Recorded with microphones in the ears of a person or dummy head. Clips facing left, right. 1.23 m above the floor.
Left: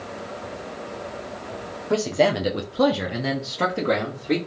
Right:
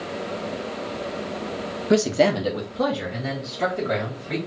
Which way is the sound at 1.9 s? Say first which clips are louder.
Right 2 dB; 25° right (ahead or behind).